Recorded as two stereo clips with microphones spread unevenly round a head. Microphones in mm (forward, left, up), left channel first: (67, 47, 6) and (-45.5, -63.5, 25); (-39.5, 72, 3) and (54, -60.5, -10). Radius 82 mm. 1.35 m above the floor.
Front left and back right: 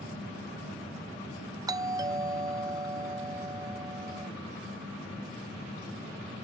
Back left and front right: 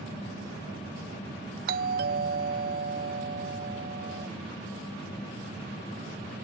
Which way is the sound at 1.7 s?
65° right.